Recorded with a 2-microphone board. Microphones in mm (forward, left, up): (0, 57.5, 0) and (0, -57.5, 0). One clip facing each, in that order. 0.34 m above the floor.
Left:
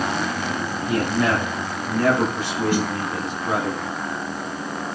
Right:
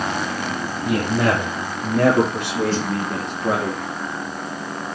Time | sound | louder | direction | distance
0.8 | a man speaking | right 2 dB | 70° right (ahead or behind) | 4.5 m
2.7 | a snare drum | left 2 dB | 15° left (ahead or behind) | 1.1 m